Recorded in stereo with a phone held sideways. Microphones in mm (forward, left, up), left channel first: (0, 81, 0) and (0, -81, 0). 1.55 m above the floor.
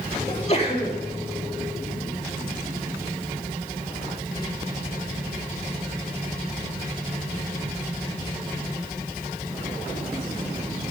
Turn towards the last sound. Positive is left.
turn(degrees=40)  # may be behind; listen again after turning